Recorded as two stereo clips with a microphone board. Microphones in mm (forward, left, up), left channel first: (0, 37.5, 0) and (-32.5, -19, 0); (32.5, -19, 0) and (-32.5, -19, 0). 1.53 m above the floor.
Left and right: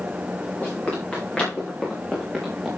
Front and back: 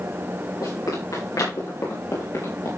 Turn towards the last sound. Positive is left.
turn(degrees=-25)